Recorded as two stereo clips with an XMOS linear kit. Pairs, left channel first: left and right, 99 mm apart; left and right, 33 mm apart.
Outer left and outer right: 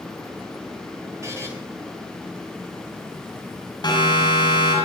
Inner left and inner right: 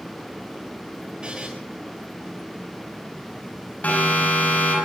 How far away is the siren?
About 9 m.